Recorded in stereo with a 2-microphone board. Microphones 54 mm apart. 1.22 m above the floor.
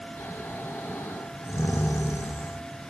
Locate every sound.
0.2 s snoring: 55° left (ahead or behind), 0.5 m